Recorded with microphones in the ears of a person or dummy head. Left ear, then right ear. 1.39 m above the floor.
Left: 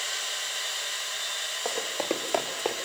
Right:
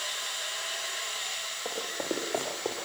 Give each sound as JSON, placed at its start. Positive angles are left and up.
{"t": 1.6, "sound": "running footsteps", "side_deg": 55, "distance_m": 6.0}